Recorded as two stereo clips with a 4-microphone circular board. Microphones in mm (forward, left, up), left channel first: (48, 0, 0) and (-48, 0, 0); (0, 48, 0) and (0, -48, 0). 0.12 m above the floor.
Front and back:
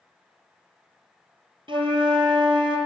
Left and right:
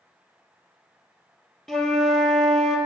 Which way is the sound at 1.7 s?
175° left.